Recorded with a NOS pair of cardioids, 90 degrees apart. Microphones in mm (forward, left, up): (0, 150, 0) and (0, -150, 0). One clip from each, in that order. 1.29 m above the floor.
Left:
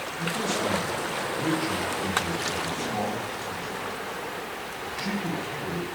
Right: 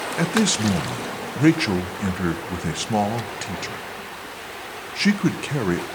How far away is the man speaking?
About 0.6 m.